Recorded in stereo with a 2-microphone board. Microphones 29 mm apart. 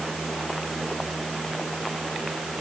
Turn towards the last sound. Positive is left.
No sound to turn to.